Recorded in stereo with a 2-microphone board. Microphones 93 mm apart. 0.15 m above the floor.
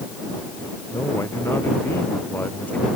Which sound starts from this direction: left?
A man speaking, at 0.9 s.